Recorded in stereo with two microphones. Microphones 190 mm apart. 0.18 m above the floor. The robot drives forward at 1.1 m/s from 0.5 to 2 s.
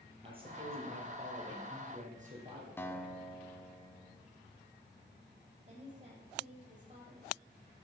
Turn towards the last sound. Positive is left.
turn(degrees=-40)  # may be behind; listen again after turning